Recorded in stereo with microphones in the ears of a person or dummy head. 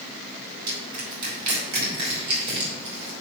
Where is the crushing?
45° right (ahead or behind), 3.5 m.